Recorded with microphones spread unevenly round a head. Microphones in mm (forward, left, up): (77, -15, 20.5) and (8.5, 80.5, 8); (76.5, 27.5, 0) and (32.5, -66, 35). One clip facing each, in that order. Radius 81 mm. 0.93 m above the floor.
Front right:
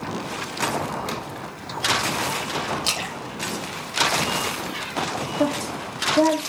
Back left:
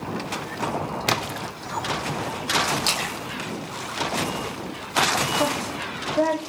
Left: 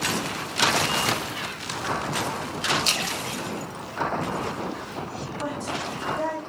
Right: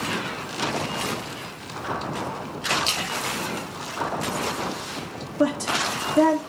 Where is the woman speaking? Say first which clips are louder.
Front right 2 dB, right 9 dB; 125° right, 1.8 m.